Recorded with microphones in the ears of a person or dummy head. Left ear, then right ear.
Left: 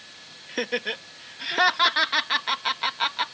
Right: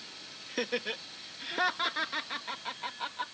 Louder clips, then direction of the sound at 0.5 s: Left 6 dB; 10° left (ahead or behind).